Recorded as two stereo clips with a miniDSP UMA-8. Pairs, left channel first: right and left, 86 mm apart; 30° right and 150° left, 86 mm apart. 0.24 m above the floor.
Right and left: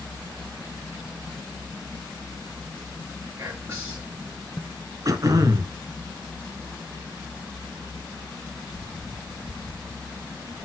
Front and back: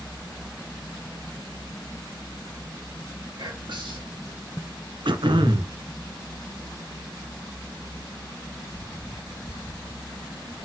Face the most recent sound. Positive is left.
turn(degrees=135)